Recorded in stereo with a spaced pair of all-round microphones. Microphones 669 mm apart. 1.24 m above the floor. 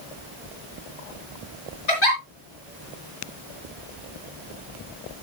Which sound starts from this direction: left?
A giggle, at 1.9 s.